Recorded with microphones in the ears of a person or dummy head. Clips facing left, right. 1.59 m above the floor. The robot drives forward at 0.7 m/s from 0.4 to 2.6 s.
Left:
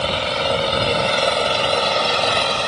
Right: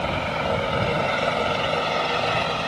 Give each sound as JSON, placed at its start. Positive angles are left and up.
{"t": 0.0, "sound": "an engine running", "side_deg": 50}